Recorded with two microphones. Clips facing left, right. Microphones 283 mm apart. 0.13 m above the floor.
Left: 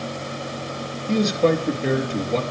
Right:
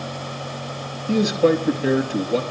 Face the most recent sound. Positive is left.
turn(degrees=-10)  # may be behind; listen again after turning